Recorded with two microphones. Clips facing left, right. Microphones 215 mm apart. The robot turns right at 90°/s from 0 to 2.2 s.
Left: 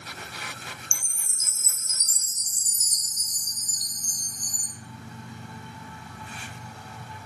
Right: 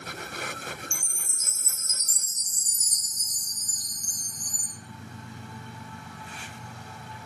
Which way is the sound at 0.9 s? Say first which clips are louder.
Right 3 dB; 20° right.